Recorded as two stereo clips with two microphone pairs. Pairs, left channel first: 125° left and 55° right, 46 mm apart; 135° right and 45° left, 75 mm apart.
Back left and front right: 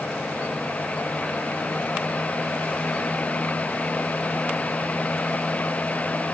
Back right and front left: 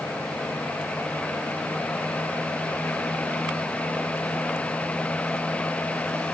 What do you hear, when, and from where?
Only background noise.